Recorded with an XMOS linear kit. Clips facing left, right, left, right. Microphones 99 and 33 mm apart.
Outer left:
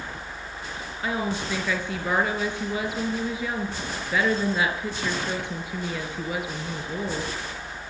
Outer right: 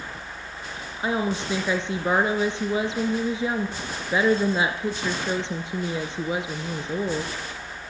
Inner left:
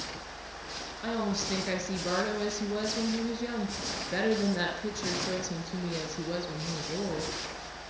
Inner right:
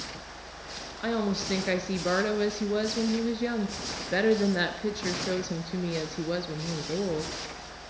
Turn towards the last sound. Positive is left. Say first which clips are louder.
# outer right 3 dB, inner right 3 dB
turn(degrees=-25)  # may be behind; listen again after turning